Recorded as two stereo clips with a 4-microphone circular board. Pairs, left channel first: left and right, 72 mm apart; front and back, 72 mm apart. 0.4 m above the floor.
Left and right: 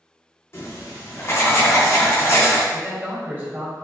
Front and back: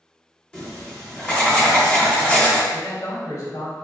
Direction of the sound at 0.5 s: 75° left.